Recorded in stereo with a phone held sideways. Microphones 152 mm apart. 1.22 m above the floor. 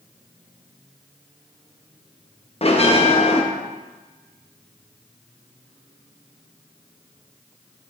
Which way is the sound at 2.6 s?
40° left (ahead or behind).